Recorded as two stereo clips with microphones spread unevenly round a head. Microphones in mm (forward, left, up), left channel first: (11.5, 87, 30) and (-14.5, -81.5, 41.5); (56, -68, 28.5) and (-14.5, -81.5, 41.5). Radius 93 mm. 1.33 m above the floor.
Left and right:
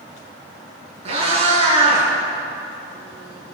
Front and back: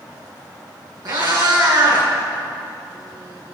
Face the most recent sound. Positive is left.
turn(degrees=-155)